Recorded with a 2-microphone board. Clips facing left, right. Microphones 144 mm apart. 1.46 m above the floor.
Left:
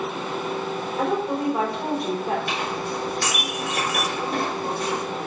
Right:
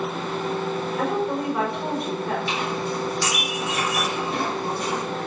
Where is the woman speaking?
20° left (ahead or behind), 4.5 m.